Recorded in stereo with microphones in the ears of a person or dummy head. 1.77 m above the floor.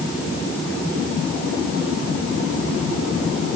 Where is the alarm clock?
I don't hear an alarm clock.